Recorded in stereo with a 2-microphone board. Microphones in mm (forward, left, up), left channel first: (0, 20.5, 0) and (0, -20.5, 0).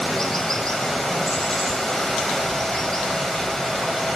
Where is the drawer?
I don't hear a drawer.